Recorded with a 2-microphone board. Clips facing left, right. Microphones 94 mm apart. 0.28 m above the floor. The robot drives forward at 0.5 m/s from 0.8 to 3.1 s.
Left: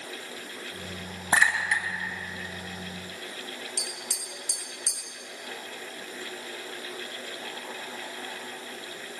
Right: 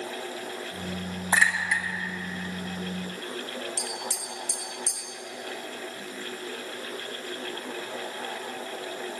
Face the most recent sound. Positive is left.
turn(degrees=70)  # may be behind; listen again after turning